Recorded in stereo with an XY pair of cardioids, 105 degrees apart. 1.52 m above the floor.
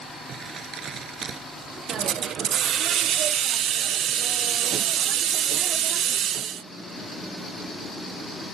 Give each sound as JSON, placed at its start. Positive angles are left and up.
{"t": 0.3, "sound": "crumpling", "azimuth_deg": -55}
{"t": 1.9, "sound": "a hiss", "azimuth_deg": -65}